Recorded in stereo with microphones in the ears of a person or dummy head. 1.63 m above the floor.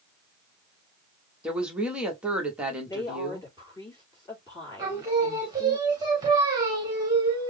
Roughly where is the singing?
Right.